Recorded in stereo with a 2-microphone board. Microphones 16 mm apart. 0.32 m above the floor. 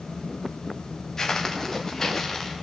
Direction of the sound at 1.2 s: 35° left (ahead or behind).